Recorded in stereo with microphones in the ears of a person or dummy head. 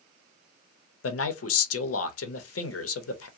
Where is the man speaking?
85° left, 0.6 m.